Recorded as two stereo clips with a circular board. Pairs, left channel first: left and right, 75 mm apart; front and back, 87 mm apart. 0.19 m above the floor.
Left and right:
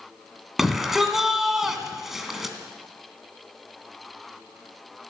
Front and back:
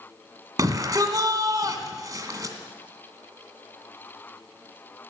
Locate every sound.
0.6 s a shout: 175° right, 2 m